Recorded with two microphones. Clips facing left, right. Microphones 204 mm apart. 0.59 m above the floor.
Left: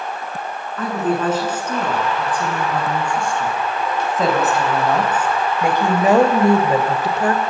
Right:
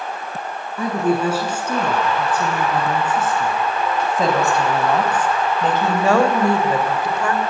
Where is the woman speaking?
10° right (ahead or behind), 7.5 m; by 7.4 s 40° left (ahead or behind), 2.5 m.